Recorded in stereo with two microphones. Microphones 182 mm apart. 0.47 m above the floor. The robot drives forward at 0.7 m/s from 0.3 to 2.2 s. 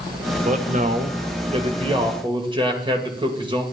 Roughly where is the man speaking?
Right.